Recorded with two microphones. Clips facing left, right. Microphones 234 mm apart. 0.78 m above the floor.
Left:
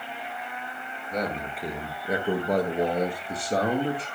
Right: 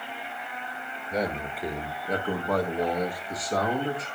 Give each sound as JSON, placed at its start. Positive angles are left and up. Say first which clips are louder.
{"t": 1.1, "sound": "a man speaking", "louder": "right 1 dB", "side_deg": -10, "distance_m": 1.3}